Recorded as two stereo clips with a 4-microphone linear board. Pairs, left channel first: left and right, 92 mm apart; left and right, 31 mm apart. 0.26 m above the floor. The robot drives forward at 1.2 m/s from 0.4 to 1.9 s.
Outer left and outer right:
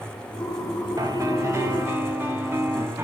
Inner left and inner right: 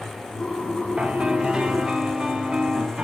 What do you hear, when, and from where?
1.0 s a piano: 40° right (ahead or behind), 0.9 m; by 3.0 s 25° right (ahead or behind), 1.6 m